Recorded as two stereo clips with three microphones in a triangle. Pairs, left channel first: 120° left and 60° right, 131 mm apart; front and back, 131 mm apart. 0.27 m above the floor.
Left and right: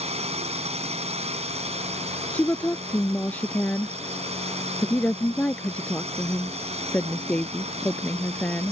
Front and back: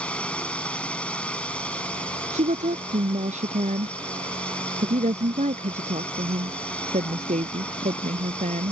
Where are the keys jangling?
No keys jangling in this recording.